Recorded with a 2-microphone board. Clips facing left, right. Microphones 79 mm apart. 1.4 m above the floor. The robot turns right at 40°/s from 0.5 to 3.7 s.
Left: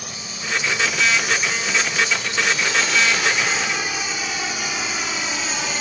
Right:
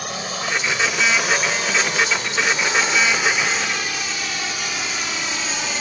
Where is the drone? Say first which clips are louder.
Right 7 dB; 65° right (ahead or behind); by 5.8 s 5° left (ahead or behind).